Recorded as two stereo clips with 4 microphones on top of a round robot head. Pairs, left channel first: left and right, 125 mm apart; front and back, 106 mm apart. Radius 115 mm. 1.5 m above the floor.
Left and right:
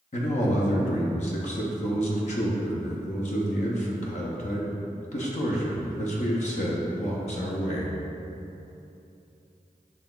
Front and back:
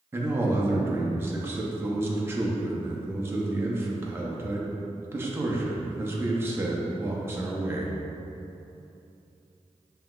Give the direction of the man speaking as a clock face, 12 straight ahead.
8 o'clock.